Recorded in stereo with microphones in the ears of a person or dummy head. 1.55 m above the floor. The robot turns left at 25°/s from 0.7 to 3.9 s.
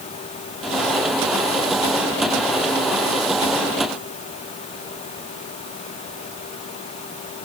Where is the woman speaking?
I don't hear a woman speaking.